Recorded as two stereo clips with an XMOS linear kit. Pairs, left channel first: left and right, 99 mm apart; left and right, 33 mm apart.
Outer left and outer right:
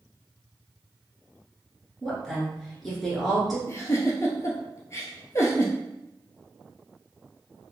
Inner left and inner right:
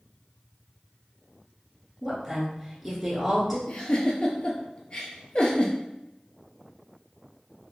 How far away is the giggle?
About 0.7 m.